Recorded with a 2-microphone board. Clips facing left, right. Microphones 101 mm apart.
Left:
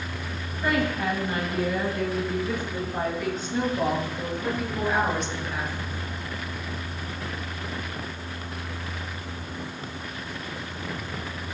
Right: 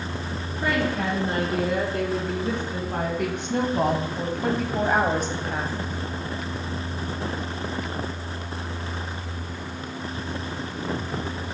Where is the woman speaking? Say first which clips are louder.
Even; 75° right (ahead or behind), 4.5 m; by 5.8 s 35° right (ahead or behind), 1.5 m.